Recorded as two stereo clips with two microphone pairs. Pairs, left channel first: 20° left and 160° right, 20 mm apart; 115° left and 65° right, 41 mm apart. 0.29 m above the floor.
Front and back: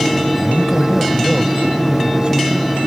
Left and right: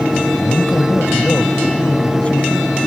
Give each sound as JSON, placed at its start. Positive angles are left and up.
{"t": 0.4, "sound": "a man speaking", "azimuth_deg": 65}